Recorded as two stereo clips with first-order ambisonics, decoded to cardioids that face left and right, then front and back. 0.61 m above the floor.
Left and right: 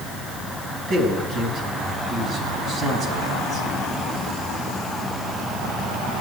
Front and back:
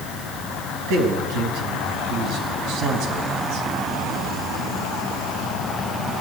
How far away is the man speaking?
About 4.5 m.